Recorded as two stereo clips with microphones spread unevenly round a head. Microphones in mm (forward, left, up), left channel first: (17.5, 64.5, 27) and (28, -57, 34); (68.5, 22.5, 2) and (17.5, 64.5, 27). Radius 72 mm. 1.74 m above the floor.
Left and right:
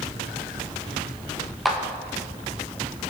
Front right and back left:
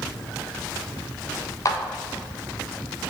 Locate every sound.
1.6 s a clap: 5° left, 1.7 m